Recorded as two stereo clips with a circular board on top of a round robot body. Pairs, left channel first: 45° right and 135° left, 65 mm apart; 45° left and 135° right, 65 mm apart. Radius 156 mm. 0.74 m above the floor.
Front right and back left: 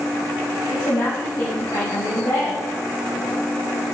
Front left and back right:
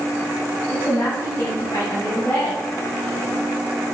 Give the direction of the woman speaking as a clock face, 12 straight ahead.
1 o'clock.